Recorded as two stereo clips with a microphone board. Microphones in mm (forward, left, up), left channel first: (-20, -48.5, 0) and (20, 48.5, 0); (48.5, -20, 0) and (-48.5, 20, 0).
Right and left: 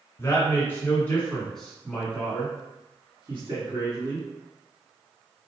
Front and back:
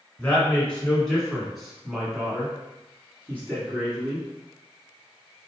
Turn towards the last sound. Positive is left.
turn(degrees=100)